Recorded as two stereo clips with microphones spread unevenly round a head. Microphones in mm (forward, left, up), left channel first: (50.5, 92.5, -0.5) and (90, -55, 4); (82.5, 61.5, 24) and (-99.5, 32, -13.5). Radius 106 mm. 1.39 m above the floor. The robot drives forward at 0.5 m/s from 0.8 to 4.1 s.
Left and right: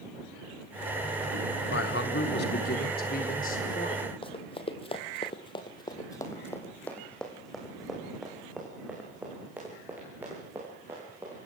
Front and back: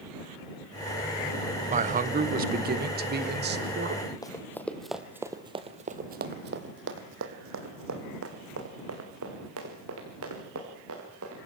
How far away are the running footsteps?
About 2 m.